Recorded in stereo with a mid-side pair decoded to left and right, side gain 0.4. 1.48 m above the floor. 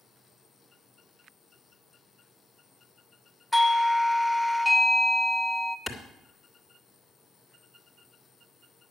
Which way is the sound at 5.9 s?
15° left.